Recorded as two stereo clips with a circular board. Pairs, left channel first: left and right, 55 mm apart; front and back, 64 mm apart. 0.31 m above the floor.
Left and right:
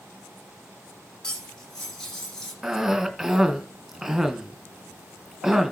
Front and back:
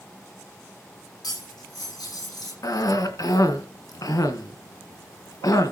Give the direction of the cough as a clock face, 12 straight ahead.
12 o'clock.